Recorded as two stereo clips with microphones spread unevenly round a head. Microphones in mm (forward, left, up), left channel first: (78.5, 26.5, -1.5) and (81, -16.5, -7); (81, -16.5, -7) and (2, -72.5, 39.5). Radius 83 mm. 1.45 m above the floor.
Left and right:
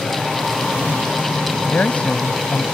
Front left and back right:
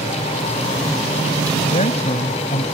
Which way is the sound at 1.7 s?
35° left.